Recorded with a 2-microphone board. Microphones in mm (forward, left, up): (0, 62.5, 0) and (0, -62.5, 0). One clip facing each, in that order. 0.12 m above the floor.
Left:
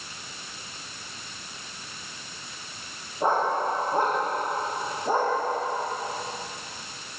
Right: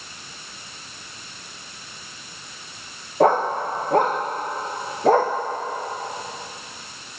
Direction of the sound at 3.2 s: 80° right.